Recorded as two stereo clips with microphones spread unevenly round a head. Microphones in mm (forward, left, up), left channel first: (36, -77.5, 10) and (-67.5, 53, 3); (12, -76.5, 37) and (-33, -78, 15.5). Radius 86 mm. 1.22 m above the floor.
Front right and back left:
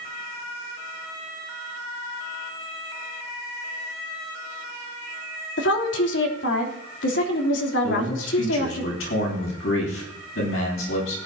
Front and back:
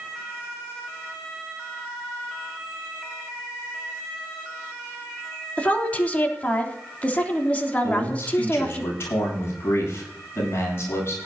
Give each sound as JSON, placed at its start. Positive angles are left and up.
{"t": 5.6, "sound": "a woman speaking", "azimuth_deg": -65, "distance_m": 3.0}
{"t": 7.8, "sound": "a man speaking", "azimuth_deg": -30, "distance_m": 9.5}